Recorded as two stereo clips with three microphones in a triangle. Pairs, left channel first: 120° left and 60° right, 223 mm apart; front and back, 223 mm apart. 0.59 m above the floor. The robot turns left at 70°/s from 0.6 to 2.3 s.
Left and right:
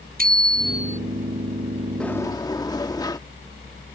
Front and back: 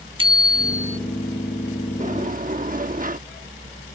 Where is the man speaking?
I don't hear a man speaking.